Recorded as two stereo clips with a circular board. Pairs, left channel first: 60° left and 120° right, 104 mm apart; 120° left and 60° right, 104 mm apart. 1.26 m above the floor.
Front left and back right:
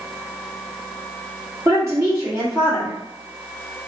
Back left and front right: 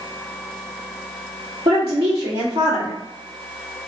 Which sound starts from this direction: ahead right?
A woman speaking, at 1.6 s.